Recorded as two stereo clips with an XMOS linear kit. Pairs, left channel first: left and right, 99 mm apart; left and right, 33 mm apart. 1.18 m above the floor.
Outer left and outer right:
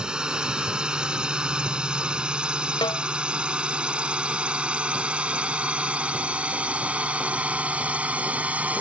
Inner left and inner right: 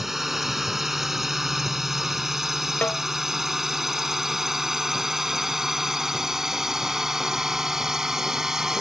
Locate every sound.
0.0 s a drone: 10° right (ahead or behind); by 8.8 s 15° right (ahead or behind)
2.8 s a snare drum: 55° left (ahead or behind)